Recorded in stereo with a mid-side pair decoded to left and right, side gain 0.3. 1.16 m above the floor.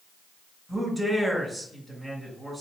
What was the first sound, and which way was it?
A man speaking, 25° right.